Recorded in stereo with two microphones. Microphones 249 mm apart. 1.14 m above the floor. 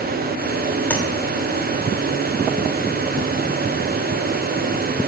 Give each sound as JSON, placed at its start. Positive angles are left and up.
{"t": 0.9, "sound": "tapping", "side_deg": 5, "distance_m": 2.5}